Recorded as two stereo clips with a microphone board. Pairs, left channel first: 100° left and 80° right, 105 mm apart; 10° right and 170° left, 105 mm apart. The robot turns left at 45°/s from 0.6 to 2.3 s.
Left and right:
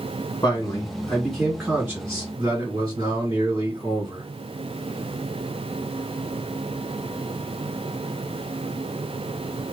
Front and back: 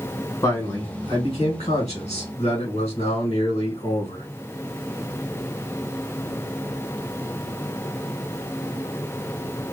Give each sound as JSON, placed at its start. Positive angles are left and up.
{"t": 0.4, "sound": "a man speaking", "azimuth_deg": 40, "distance_m": 1.8}